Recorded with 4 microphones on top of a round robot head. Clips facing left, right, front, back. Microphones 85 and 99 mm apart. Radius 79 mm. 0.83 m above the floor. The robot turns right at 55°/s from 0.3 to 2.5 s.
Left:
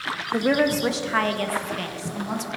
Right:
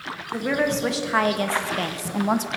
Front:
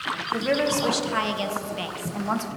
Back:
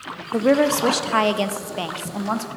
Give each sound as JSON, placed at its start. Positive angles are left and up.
{"t": 0.3, "sound": "a woman speaking", "azimuth_deg": 150, "distance_m": 0.5}